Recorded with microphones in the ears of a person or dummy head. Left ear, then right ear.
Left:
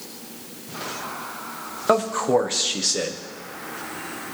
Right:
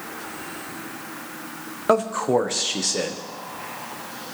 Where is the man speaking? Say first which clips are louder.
Even; 5° right (ahead or behind), 0.8 m.